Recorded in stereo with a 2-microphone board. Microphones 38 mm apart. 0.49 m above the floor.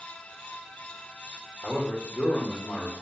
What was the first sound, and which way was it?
A man speaking, 35° left (ahead or behind).